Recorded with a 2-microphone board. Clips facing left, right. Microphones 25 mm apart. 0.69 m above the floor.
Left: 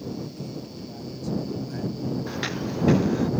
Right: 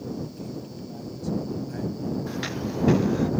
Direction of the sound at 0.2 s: 5° left (ahead or behind).